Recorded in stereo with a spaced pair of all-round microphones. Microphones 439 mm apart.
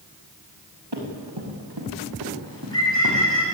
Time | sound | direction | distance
0.9 | running footsteps | 60° right (ahead or behind) | 8.5 m
2.5 | a bird | 70° left (ahead or behind) | 9.5 m